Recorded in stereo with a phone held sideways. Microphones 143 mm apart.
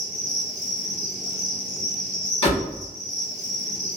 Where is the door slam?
45° left (ahead or behind), 1.3 m.